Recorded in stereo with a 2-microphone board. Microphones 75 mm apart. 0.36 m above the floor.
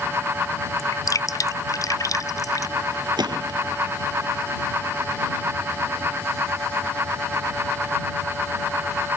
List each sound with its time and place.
0.8 s dripping: 55° left (ahead or behind)
3.2 s a gunshot: 75° right (ahead or behind)